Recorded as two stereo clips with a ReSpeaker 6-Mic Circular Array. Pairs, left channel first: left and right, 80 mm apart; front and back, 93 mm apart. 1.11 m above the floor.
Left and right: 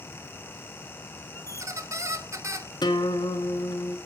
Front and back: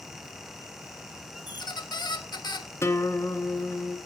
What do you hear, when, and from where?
1.5 s a squeak: 40° right, 1.1 m
2.8 s a guitar: 60° left, 1.7 m